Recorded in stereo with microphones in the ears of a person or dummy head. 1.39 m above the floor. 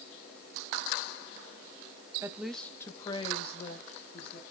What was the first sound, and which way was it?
A woman speaking, 20° right (ahead or behind).